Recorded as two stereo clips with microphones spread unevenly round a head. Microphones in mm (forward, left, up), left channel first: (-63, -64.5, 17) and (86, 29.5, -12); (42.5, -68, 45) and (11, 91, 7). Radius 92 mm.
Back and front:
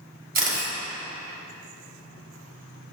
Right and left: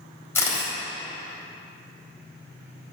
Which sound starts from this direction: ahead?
A camera shutter, at 0.3 s.